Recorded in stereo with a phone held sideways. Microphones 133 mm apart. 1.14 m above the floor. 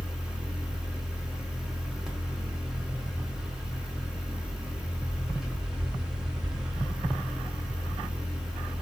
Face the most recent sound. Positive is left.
turn(degrees=-5)  # may be behind; listen again after turning